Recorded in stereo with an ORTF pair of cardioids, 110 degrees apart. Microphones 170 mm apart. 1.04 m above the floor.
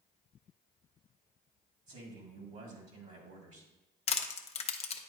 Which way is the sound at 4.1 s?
40° left.